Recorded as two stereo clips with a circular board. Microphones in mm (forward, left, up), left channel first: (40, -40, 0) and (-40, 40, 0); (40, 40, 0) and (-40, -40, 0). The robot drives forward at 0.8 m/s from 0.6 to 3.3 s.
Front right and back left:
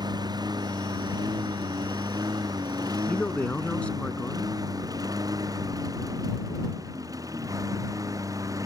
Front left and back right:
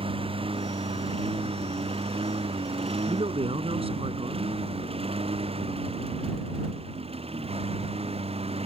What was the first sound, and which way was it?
A lawn mower, 175° right.